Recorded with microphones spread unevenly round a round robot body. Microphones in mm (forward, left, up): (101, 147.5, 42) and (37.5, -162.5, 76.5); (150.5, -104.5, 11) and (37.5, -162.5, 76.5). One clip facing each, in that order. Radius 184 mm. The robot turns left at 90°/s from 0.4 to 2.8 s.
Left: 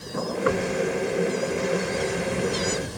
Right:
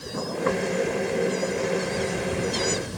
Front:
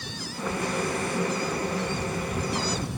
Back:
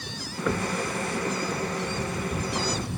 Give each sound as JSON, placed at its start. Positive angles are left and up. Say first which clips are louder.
{"t": 0.5, "sound": "knocking", "louder": "left 1 dB, back 2 dB", "azimuth_deg": 155}